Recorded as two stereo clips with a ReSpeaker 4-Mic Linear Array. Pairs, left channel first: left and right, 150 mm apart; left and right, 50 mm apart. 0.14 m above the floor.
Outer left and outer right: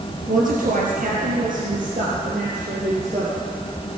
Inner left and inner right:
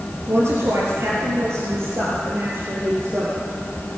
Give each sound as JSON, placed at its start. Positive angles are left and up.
{"t": 0.3, "sound": "a woman speaking", "side_deg": -65, "distance_m": 2.5}